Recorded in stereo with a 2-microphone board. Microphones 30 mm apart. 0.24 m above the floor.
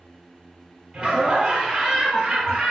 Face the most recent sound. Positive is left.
turn(degrees=-10)  # may be behind; listen again after turning